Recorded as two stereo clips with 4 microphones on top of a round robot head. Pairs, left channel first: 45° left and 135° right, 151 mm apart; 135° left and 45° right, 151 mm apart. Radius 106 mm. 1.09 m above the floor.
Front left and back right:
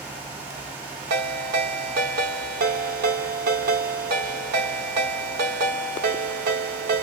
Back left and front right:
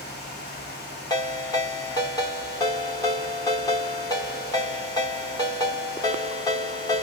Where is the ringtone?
155° right, 1.1 m.